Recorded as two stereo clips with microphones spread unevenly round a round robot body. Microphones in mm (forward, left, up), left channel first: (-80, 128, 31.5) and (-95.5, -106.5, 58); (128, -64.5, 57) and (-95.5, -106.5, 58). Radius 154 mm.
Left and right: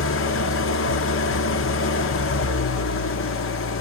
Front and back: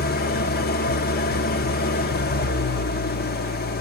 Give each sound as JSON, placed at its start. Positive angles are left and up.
{"t": 0.0, "sound": "an engine running", "azimuth_deg": 60, "distance_m": 0.7}